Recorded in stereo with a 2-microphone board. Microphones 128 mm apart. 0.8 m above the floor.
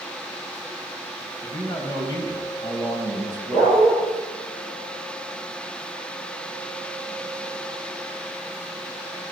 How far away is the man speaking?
About 4 m.